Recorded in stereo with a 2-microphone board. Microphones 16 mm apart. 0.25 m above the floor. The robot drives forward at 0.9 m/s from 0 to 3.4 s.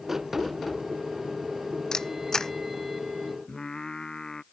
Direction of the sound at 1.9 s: 35° left (ahead or behind).